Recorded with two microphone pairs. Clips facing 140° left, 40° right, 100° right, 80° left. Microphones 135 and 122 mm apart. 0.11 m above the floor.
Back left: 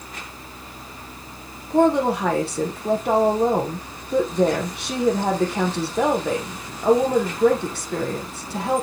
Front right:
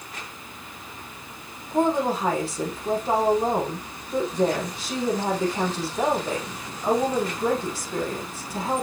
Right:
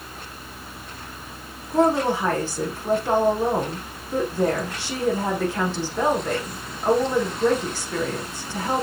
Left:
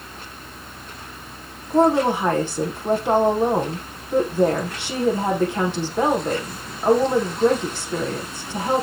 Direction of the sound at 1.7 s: 150° left.